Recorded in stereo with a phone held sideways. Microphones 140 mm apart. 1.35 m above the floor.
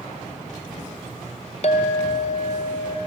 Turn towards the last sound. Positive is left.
turn(degrees=50)  # may be behind; listen again after turning